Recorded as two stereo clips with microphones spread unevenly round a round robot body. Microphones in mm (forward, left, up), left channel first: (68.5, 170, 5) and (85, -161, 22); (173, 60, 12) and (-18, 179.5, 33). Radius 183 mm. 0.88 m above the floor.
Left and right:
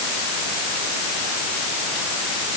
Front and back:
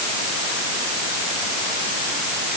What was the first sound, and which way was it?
Only background noise.